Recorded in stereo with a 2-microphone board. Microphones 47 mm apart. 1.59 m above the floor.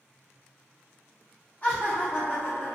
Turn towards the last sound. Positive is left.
turn(degrees=35)  # may be behind; listen again after turning